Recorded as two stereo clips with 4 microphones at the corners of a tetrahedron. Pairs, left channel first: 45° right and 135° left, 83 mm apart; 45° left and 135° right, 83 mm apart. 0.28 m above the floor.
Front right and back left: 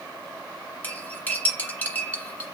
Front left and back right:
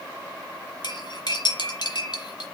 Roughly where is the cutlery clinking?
Ahead left.